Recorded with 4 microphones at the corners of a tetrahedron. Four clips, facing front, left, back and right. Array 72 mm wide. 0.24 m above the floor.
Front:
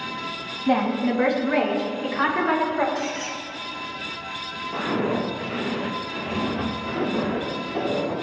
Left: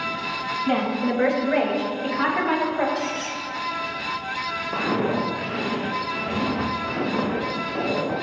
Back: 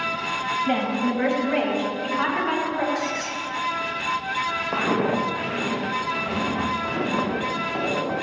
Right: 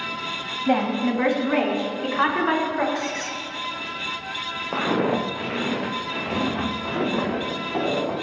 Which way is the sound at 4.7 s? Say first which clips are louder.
Right 2 dB, even; 135° right.